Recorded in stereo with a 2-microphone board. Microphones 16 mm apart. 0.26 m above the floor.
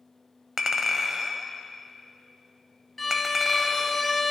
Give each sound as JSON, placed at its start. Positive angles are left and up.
{"t": 0.6, "sound": "a clink", "side_deg": -30, "distance_m": 0.6}
{"t": 3.0, "sound": "a violin", "side_deg": 5, "distance_m": 0.6}